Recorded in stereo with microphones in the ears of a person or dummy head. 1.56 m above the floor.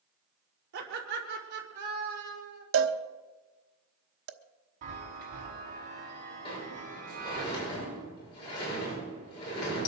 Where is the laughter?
55° right (ahead or behind), 4 m; by 2.6 s 50° right (ahead or behind), 5.5 m.